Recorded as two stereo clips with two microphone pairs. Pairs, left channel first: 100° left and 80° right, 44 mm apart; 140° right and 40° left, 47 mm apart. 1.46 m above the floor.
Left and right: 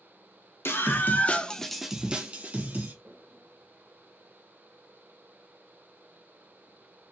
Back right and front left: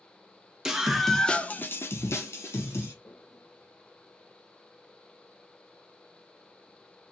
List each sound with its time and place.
0.7 s a scream: 115° left, 1.1 m; by 2.9 s 135° right, 1.6 m
3.0 s a toilet flushing: 120° right, 1.8 m